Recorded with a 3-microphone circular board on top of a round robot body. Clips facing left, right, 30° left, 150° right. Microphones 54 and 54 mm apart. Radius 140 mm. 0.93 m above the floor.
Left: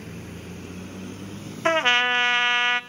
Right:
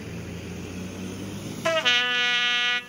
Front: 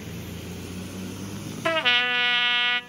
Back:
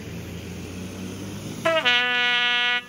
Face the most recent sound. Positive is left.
turn(degrees=125)